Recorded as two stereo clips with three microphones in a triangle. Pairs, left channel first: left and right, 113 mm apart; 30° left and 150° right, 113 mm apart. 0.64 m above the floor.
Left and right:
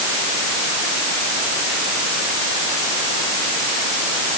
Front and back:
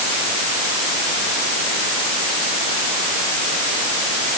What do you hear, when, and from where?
Only background noise.